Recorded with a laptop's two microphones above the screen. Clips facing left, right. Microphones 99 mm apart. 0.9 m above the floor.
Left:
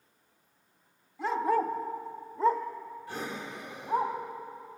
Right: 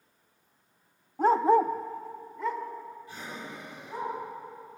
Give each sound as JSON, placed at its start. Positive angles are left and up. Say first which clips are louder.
{"t": 1.2, "sound": "a dog barking", "louder": "right 6 dB", "side_deg": -45, "distance_m": 0.7}
{"t": 3.1, "sound": "breathing", "louder": "left 3 dB", "side_deg": 70, "distance_m": 2.0}